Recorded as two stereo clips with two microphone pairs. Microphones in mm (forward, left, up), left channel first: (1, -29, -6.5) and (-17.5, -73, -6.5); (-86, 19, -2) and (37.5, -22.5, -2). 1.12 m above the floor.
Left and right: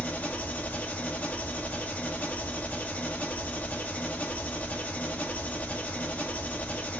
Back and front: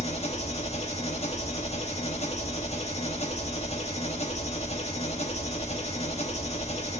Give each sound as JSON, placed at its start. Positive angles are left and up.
{"t": 0.0, "sound": "an engine running", "azimuth_deg": 125, "distance_m": 1.1}